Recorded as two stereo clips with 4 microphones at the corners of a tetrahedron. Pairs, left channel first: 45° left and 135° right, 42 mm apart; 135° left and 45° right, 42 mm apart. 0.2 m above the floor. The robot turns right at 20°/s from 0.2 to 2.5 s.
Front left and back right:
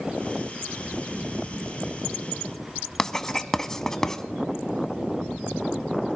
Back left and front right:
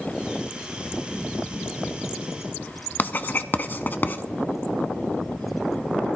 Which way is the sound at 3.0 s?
120° left.